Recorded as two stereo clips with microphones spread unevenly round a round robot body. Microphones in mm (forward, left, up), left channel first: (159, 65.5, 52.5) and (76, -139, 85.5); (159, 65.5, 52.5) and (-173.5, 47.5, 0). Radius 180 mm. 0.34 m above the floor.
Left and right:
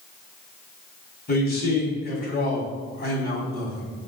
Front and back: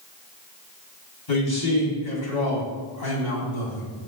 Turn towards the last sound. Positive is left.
turn(degrees=25)